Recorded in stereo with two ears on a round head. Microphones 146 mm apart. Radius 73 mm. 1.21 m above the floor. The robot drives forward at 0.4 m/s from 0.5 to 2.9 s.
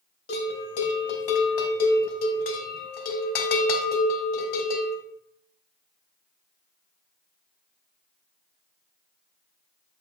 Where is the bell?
45° left (ahead or behind), 2.0 m; by 5.0 s 60° left (ahead or behind), 1.6 m.